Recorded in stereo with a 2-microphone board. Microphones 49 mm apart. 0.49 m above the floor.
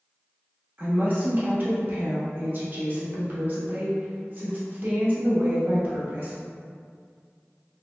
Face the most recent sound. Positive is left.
turn(degrees=-40)  # may be behind; listen again after turning